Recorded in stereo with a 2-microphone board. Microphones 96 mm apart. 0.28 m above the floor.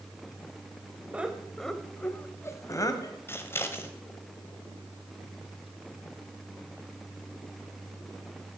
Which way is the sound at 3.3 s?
25° left (ahead or behind).